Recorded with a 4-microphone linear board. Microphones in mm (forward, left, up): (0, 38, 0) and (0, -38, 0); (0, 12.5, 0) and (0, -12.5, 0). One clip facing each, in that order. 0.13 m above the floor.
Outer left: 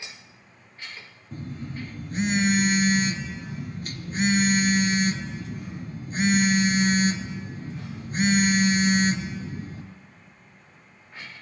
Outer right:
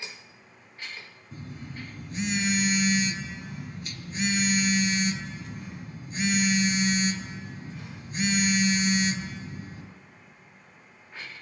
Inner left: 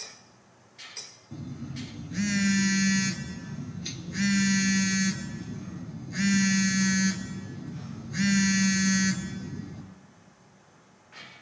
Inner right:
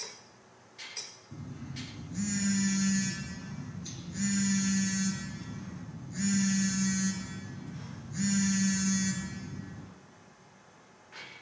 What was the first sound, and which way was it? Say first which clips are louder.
A phone buzzing: outer left 5 dB, inner left 6 dB; 45° left (ahead or behind).